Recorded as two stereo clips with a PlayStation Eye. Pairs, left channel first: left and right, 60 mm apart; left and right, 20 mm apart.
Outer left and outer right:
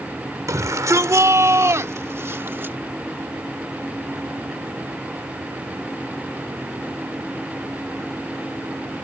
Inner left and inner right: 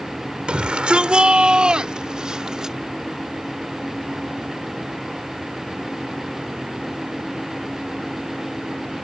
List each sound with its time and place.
0.5 s a shout: 65° right (ahead or behind); by 2.8 s 35° right (ahead or behind)